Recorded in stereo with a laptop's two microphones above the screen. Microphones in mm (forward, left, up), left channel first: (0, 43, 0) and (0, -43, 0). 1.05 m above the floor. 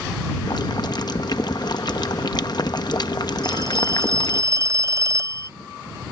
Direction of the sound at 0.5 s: 50° left (ahead or behind).